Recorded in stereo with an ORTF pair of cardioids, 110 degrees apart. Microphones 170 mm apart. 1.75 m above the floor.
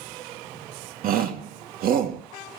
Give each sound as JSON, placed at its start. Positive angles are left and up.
{"t": 1.0, "sound": "a shout", "azimuth_deg": -65, "distance_m": 3.0}